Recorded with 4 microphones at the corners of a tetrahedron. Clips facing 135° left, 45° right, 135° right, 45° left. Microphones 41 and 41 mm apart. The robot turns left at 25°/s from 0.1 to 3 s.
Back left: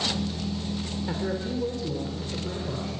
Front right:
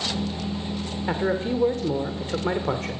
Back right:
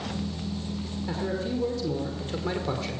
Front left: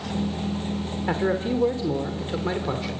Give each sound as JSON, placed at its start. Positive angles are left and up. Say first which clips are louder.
{"t": 1.1, "sound": "a man speaking", "louder": "front right 7 dB, front left 6 dB", "azimuth_deg": 5, "distance_m": 2.5}